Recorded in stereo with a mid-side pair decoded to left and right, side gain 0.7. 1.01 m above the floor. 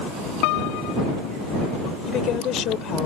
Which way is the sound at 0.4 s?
70° left.